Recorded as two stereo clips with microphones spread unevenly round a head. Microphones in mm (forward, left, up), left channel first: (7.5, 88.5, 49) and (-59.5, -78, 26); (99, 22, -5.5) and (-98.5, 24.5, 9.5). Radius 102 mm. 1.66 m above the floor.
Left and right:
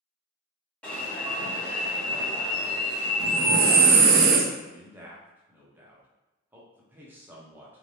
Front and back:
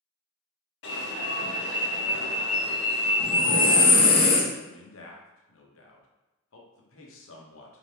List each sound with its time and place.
0.8 s an alarm: 20° right, 1.3 m
3.2 s breathing: 70° right, 0.5 m
4.6 s a man speaking: 30° right, 0.9 m